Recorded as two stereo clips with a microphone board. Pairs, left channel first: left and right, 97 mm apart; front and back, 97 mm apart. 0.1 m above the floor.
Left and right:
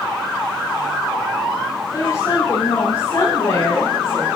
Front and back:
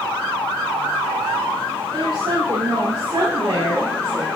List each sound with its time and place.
1.9 s a woman speaking: 135° left, 8.5 m; by 4.3 s 115° left, 8 m